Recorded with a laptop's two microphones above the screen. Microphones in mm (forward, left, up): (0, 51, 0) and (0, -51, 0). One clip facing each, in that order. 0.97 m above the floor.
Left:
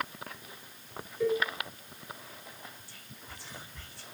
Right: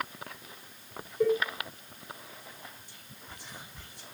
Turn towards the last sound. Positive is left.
turn(degrees=-15)  # may be behind; listen again after turning